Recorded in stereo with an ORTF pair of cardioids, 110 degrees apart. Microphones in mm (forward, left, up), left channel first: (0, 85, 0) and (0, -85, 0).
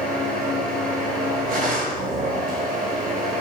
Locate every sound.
0.0 s a machine running: 55° right, 2.5 m